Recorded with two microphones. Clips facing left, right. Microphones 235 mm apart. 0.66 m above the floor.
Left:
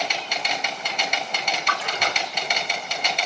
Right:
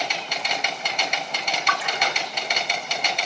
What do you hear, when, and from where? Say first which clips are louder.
1.7 s a splash: right 2 dB; 45° left (ahead or behind), 0.8 m